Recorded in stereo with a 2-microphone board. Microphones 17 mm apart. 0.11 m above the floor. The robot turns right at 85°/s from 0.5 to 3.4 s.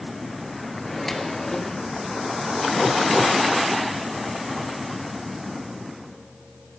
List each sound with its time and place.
0.8 s a microwave: 5° left, 1.3 m; by 1.8 s 85° left, 1.3 m